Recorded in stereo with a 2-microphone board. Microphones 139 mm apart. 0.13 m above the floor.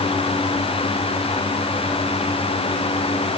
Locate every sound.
Only background noise.